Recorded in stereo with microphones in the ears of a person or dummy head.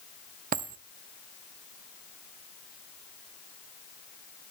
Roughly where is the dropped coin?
Right.